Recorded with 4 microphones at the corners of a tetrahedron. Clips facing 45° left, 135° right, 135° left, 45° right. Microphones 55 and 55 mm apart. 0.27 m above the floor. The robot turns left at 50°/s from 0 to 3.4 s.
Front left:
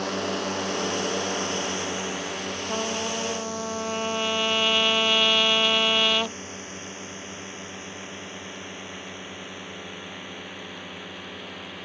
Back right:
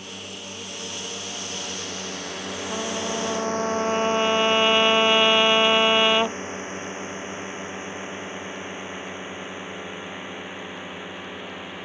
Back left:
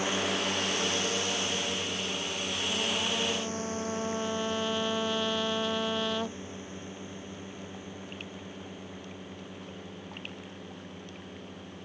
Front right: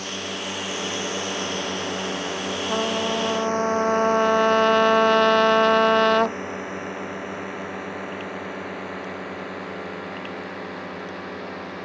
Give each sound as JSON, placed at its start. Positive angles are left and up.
{"t": 0.0, "sound": "a drone", "azimuth_deg": 60}
{"t": 2.7, "sound": "a trumpet", "azimuth_deg": -35}